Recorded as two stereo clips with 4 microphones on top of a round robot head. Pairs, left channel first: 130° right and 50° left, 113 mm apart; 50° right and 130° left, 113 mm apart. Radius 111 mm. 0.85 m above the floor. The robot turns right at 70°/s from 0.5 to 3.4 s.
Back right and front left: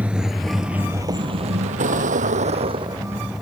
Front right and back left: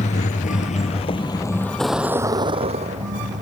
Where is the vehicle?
30° right; by 3.4 s 140° left.